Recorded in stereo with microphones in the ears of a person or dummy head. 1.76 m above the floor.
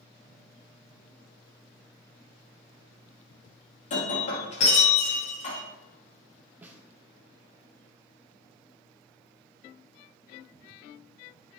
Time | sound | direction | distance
3.9 | breaking glass | 40° left (ahead or behind) | 1.9 m
6.6 | a snare drum | 15° right (ahead or behind) | 0.8 m